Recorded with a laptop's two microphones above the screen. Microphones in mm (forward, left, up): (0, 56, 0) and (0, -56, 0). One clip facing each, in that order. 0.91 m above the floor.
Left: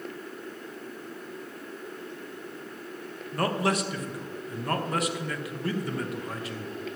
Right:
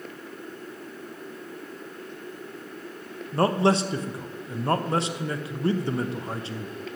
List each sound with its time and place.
3.3 s a man speaking: 25° right (ahead or behind), 0.8 m